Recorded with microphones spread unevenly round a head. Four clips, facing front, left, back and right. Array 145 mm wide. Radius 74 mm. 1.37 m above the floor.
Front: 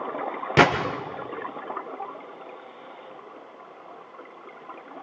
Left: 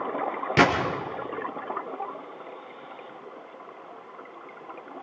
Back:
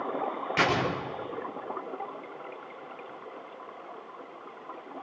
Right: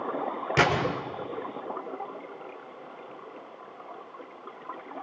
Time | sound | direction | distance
0.6 | a gunshot | 5° left | 3.5 m